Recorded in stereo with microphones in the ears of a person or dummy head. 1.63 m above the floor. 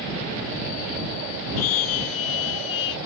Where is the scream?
80° left; by 3.0 s 70° left (ahead or behind).